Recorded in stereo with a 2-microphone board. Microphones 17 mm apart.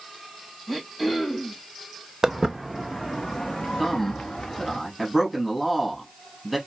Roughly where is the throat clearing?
Centre.